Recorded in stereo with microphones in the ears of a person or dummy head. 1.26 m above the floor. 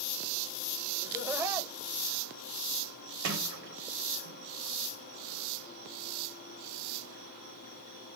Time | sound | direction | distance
1.0 | laughter | 15° right (ahead or behind) | 1.3 m
3.2 | a sliding door | 80° right | 1.1 m